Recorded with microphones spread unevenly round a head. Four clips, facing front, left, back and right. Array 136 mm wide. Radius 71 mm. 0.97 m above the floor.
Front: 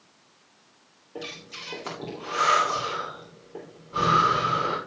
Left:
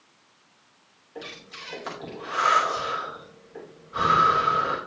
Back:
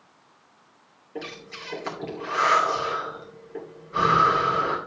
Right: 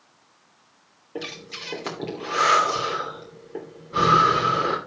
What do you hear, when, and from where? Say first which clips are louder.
1.1 s breathing: right 5 dB, back 2 dB; 100° right, 3 m